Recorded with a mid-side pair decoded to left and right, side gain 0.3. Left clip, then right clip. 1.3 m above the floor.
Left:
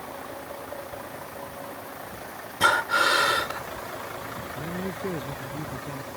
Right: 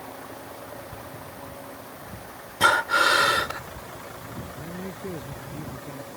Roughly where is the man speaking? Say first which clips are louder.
Left 4 dB; ahead left.